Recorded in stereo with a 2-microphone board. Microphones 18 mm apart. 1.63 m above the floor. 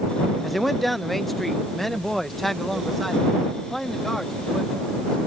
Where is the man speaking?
Centre (ahead or behind); by 4.7 s 20° left (ahead or behind).